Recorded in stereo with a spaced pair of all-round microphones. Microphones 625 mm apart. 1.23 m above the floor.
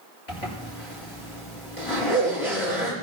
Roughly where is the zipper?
Left.